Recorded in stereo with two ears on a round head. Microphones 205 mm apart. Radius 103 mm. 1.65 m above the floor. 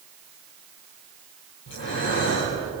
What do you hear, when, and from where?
1.7 s breathing: 55° left (ahead or behind), 7 m